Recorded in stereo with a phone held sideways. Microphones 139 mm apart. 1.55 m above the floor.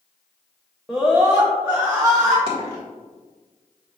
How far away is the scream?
About 0.7 m.